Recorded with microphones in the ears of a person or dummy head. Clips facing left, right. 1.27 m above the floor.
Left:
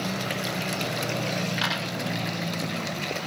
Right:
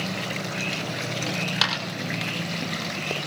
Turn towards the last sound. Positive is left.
turn(degrees=-70)  # may be behind; listen again after turning